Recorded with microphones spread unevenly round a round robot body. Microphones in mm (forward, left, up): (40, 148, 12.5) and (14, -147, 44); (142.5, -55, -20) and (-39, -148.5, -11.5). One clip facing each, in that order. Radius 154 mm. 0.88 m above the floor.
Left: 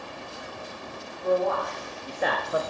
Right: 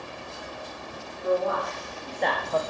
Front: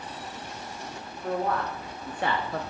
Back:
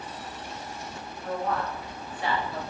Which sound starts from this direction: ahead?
A man speaking, at 1.2 s.